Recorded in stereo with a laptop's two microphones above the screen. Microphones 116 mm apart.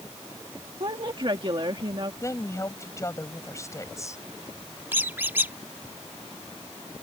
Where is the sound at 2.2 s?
25° left (ahead or behind).